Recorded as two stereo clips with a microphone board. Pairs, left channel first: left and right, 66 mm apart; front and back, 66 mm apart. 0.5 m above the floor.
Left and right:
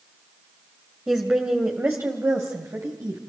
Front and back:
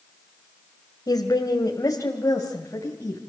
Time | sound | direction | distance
1.1 | a woman speaking | 15° right | 2 m